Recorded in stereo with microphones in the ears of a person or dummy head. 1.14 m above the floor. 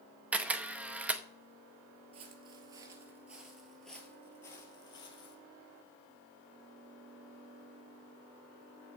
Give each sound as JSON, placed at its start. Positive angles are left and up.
{"t": 0.3, "sound": "a camera shutter", "side_deg": -5, "distance_m": 0.7}
{"t": 2.1, "sound": "footsteps", "side_deg": -30, "distance_m": 1.4}